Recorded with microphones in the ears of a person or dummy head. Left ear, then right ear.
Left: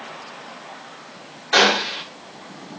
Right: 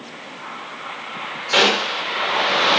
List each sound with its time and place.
1.5 s a gunshot: 20° left (ahead or behind), 2.5 m